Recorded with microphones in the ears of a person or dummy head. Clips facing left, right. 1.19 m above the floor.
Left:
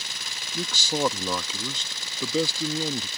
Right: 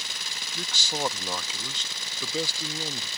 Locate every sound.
0.5 s a man speaking: 80° left